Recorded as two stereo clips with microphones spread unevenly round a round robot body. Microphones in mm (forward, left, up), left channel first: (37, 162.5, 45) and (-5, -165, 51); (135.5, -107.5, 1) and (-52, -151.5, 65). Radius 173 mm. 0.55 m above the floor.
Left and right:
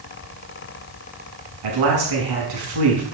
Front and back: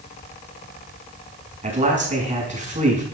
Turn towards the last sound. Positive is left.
turn(degrees=-110)